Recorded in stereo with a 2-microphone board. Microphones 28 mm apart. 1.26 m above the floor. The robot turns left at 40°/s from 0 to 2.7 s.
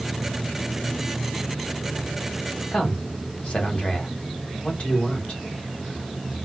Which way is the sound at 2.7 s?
50° left (ahead or behind).